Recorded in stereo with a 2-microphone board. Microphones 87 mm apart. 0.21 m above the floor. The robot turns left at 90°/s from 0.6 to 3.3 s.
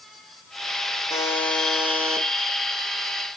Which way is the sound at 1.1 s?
50° left.